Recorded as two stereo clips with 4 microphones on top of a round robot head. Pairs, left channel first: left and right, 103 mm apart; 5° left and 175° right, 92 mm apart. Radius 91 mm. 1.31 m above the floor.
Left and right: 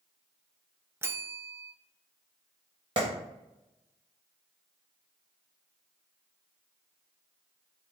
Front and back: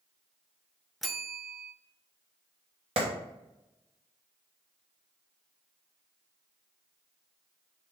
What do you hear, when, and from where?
1.0 s a bell: 85° right, 0.5 m
3.0 s a clap: 145° right, 1.3 m